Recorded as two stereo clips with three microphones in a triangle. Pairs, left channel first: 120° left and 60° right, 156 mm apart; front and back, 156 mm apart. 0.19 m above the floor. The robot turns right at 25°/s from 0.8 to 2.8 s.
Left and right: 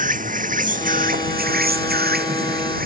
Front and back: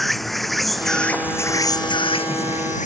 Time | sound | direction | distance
0.0 | an insect | 90° right | ?